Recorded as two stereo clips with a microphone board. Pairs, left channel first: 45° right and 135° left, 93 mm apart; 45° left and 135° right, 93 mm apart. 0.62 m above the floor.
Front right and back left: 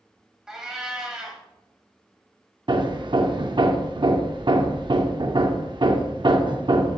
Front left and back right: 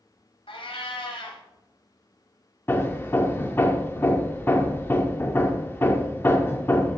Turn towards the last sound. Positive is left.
turn(degrees=110)